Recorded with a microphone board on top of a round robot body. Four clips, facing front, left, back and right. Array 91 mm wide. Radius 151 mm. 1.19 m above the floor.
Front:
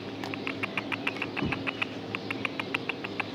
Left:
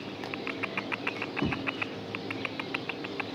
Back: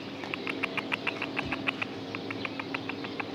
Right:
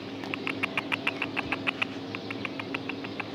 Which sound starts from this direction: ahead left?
Knocking, at 1.4 s.